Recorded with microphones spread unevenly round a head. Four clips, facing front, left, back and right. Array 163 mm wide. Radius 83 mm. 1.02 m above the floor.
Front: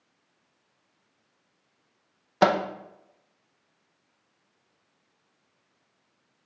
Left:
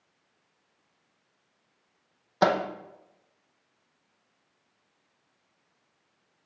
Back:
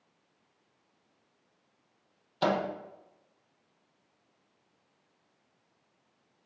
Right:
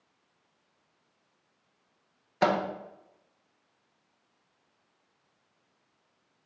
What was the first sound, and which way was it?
A microwave, 10° left.